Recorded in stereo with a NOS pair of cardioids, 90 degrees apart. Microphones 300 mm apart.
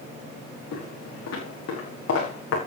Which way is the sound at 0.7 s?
65° left.